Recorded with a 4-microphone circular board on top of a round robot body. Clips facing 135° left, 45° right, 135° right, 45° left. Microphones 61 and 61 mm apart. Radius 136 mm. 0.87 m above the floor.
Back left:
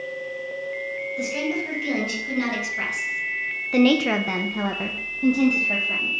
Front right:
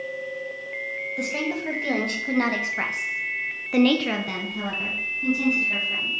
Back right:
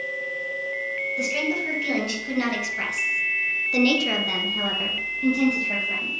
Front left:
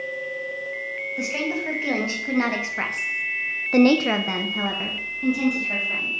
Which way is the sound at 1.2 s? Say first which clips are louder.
Back left 1 dB, even; 15° right.